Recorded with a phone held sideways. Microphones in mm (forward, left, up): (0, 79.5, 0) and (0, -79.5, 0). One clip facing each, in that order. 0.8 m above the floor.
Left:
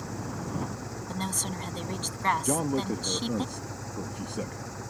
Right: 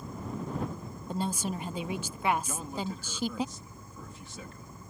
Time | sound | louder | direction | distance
0.0 | an engine running | left 2 dB | 85° left | ?
1.1 | a woman speaking | right 4 dB | 10° right (ahead or behind) | ?
2.5 | a man speaking | left 9 dB | 60° left (ahead or behind) | ?